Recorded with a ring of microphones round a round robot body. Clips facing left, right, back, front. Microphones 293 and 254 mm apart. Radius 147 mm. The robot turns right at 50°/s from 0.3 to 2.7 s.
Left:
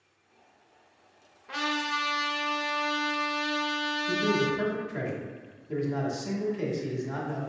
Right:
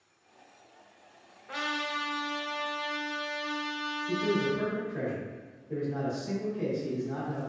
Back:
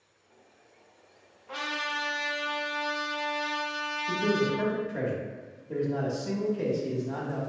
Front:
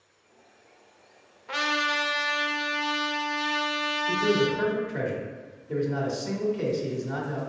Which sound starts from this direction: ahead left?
A man speaking, at 4.1 s.